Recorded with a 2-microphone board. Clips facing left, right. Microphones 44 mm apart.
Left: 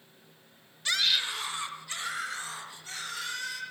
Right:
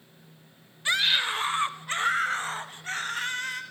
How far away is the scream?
About 1.0 m.